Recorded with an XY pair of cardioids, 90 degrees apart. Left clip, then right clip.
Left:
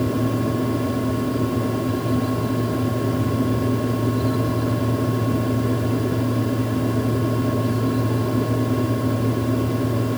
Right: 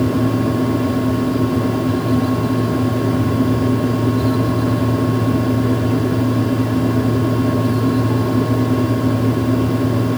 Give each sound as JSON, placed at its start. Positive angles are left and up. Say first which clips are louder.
{"t": 0.0, "sound": "a fan", "louder": "right 5 dB", "azimuth_deg": -40, "distance_m": 1.5}